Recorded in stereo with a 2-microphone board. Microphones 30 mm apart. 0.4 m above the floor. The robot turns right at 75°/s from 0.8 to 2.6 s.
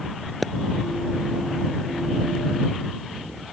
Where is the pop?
Centre (ahead or behind).